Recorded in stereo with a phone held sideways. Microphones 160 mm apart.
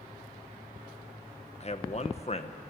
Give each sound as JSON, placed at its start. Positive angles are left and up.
{"t": 1.6, "sound": "a man speaking", "side_deg": 40, "distance_m": 1.2}